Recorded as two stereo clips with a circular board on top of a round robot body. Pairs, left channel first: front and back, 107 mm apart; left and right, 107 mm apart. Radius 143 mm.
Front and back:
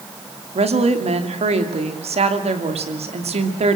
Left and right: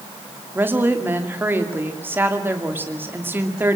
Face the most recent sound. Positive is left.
turn(degrees=-160)